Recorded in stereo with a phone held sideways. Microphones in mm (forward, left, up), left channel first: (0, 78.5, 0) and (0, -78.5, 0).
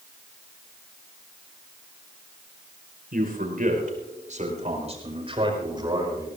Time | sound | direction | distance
3.1 | a man speaking | 70° right (ahead or behind) | 5 m